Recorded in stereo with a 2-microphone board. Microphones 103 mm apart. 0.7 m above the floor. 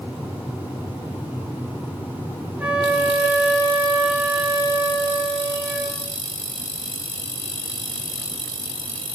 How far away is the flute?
About 1.5 m.